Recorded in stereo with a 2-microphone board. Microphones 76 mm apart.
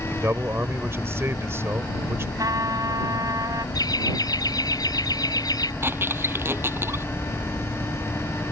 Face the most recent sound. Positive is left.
turn(degrees=-35)  # may be behind; listen again after turning